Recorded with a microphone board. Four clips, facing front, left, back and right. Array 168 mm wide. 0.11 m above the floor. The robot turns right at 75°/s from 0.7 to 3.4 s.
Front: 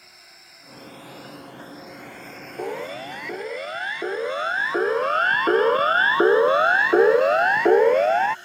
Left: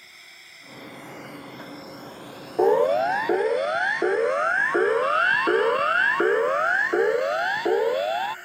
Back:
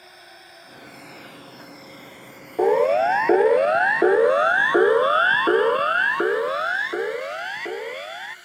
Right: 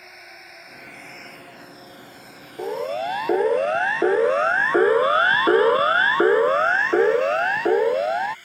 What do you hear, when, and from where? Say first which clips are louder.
0.0 s a drone: right 7 dB, back 7 dB; 125° right; by 8.4 s 65° left
2.6 s a siren: left 8 dB, back 14 dB; 130° left; by 8.3 s 10° right